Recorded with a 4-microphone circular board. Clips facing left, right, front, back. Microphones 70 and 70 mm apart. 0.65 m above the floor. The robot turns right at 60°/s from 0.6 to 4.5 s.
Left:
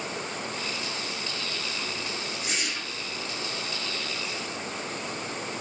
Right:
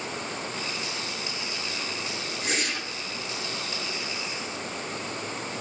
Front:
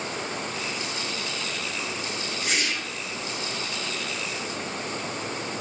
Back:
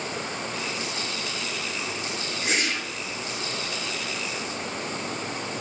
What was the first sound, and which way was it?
A whoosh, 125° right.